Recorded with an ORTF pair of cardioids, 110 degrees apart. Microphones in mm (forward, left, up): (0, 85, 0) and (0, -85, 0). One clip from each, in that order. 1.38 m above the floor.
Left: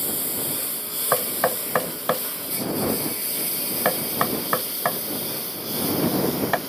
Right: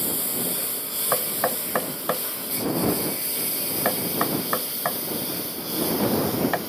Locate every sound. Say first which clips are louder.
0.0 s a lawn mower: right 1 dB; 5° left; by 6.7 s 10° left
1.1 s knocking: left 3 dB; 25° left